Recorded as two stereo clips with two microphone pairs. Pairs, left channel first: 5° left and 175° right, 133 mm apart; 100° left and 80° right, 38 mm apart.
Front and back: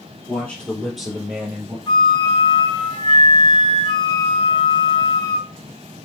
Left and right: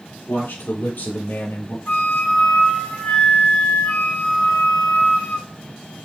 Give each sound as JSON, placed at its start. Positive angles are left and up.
{"t": 0.3, "sound": "a man speaking", "azimuth_deg": 80, "distance_m": 4.5}
{"t": 1.9, "sound": "a flute", "azimuth_deg": 60, "distance_m": 2.5}